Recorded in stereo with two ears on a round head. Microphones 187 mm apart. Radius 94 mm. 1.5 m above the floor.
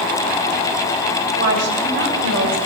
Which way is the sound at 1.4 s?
55° right (ahead or behind).